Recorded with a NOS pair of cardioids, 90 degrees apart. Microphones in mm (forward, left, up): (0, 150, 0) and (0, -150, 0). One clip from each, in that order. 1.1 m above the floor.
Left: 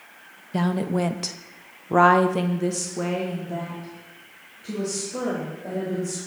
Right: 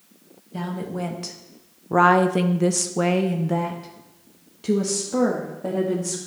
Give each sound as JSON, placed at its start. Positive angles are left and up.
{"t": 0.5, "sound": "a woman speaking", "azimuth_deg": 45, "distance_m": 1.3}